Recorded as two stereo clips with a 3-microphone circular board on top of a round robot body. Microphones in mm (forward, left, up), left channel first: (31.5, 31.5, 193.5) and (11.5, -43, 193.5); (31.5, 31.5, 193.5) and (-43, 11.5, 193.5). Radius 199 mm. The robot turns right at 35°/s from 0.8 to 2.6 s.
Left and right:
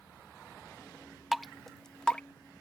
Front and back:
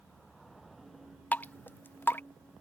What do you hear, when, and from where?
1.3 s dripping: 20° right; by 2.2 s 10° left